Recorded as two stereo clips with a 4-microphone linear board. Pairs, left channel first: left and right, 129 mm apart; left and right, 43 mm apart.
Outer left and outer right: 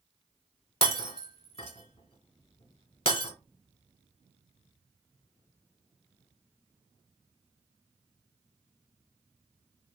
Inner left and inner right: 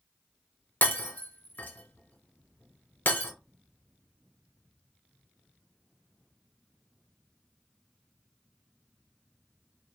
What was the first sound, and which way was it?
Breaking glass, 50° left (ahead or behind).